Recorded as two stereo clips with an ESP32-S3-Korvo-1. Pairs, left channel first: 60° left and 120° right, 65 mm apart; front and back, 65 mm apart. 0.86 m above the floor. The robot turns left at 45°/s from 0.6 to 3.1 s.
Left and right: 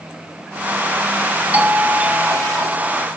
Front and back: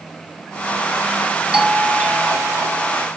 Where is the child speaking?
I don't hear a child speaking.